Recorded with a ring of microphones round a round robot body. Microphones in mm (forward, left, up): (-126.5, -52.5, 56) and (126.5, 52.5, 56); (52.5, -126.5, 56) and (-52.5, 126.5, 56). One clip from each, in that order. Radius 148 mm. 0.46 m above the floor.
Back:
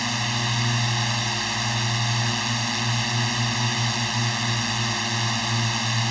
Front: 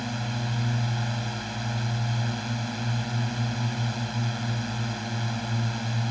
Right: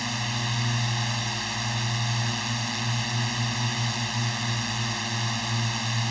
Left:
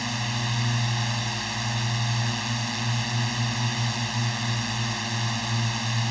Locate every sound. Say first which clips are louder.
0.0 s a drone: back 8 dB, even; 150° right